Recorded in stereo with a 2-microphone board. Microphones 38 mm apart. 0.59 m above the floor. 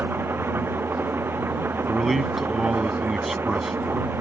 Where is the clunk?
No clunk in this recording.